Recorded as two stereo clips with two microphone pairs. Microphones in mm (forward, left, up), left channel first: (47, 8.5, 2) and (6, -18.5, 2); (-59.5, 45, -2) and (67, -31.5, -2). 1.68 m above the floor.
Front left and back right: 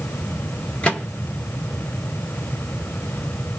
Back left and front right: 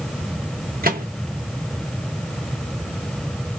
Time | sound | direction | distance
0.8 | a microwave | 35° right | 0.9 m